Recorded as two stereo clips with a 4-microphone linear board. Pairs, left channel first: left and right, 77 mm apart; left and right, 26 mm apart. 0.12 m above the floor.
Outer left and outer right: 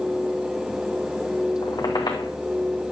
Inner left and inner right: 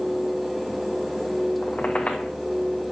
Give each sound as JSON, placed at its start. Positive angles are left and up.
{"t": 1.6, "sound": "a squeak", "side_deg": 60, "distance_m": 2.5}